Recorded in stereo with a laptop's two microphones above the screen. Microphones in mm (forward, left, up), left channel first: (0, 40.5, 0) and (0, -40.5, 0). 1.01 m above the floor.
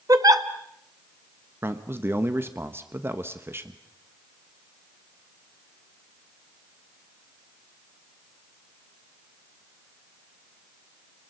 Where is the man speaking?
30° right (ahead or behind), 1.0 m.